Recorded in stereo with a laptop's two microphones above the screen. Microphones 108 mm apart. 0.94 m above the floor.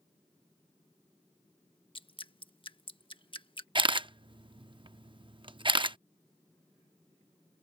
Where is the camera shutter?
45° right (ahead or behind).